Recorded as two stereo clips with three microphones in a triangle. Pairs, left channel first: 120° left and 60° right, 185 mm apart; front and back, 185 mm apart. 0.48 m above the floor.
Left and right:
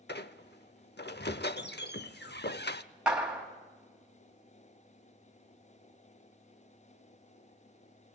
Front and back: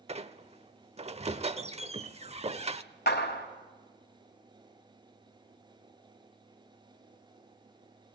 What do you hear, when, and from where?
0.1 s a squeak: 130° left, 0.7 m
3.1 s a clap: 25° left, 2.5 m